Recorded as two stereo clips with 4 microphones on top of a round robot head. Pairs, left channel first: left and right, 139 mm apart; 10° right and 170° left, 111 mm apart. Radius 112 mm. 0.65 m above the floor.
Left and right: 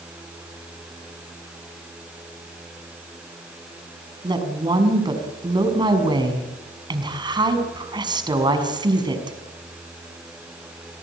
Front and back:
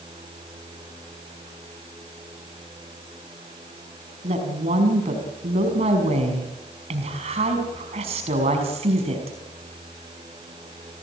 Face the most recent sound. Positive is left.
turn(degrees=-150)